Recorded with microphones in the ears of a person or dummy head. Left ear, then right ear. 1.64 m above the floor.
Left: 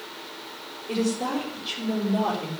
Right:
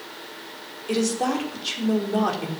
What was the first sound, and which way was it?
A woman speaking, 80° right.